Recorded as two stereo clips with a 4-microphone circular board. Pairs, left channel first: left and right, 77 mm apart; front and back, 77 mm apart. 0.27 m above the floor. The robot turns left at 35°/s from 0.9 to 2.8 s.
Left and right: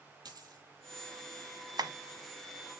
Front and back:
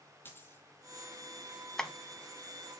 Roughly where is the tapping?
Right.